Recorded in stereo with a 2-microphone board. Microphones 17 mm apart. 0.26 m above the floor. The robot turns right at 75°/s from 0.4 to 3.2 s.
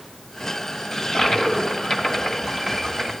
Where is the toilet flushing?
50° left, 1.8 m; by 3.1 s 145° right, 1.8 m.